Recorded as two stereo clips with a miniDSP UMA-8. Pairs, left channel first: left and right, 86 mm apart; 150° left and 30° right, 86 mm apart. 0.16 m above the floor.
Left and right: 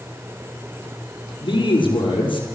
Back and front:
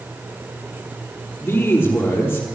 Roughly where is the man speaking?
Left.